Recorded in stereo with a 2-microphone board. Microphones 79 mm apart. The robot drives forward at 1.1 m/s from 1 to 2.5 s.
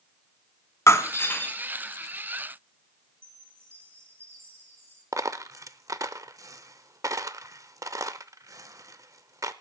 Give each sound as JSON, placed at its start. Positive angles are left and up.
{"t": 0.9, "sound": "breaking glass", "side_deg": 35, "distance_m": 0.9}
{"t": 3.2, "sound": "a chime", "side_deg": -35, "distance_m": 8.0}
{"t": 5.1, "sound": "a dropped coin", "side_deg": -45, "distance_m": 0.5}